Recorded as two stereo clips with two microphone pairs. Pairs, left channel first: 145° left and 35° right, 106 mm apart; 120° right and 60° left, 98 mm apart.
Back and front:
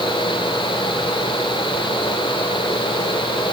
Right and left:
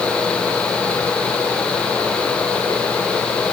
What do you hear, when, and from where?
Only background noise.